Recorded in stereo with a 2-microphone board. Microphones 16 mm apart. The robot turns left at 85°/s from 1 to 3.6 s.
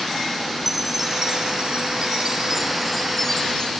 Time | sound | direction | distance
0.7 | a chime | 15° right | ?